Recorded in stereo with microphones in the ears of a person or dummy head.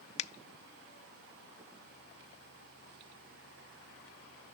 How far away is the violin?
I don't hear a violin.